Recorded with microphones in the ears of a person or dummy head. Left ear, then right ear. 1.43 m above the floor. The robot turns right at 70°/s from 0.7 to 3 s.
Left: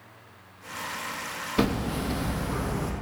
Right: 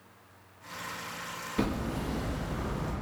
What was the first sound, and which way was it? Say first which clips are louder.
Hammering: left 6 dB; 25° left.